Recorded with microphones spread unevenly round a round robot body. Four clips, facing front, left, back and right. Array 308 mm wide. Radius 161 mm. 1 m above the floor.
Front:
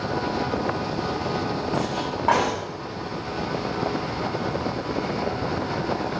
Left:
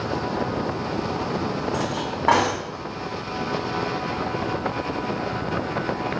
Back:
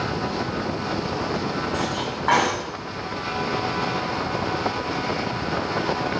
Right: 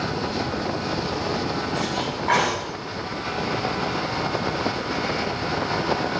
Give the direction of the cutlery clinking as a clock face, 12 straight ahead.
10 o'clock.